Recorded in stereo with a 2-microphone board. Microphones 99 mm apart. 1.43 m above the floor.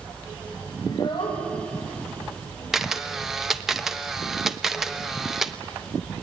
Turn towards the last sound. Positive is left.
turn(degrees=-5)  # may be behind; listen again after turning